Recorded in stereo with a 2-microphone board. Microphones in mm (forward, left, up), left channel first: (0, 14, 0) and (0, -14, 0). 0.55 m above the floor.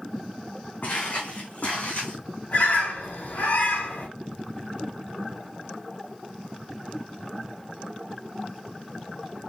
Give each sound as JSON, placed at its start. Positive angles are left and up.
{"t": 0.8, "sound": "footsteps", "side_deg": 75, "distance_m": 1.9}
{"t": 2.5, "sound": "a bird", "side_deg": 80, "distance_m": 2.0}